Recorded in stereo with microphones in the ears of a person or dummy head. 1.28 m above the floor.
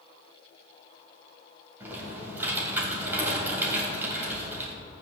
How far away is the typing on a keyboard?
About 3 m.